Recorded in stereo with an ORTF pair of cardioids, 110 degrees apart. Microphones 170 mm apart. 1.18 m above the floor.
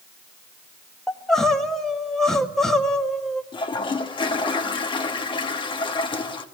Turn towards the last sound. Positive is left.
turn(degrees=30)